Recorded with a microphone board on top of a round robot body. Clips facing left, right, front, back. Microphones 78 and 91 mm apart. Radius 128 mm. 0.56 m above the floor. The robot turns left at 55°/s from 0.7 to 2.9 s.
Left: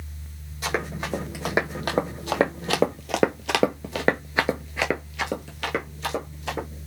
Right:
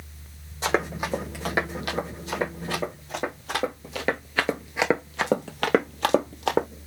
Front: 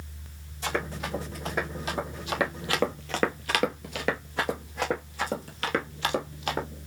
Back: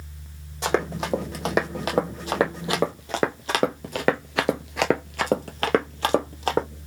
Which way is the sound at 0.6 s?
155° right.